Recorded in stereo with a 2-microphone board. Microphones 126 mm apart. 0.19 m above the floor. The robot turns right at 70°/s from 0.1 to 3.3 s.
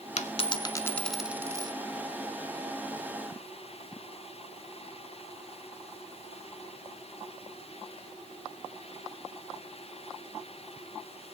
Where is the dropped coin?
110° left, 0.6 m; by 1.7 s 140° right, 0.6 m.